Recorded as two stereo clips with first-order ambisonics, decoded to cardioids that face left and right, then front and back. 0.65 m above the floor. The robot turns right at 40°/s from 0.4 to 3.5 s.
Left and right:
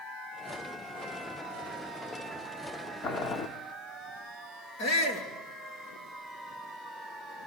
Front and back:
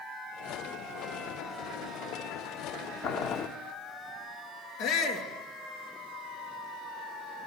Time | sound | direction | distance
3.0 | boiling | 40° left | 1.8 m
4.8 | a shout | 50° left | 9.5 m